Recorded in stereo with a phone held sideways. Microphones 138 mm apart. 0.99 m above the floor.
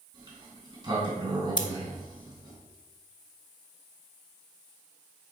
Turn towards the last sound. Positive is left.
turn(degrees=35)  # may be behind; listen again after turning